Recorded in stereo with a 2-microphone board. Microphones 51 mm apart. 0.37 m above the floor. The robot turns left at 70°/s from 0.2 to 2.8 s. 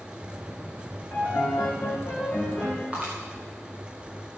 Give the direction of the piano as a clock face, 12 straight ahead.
8 o'clock.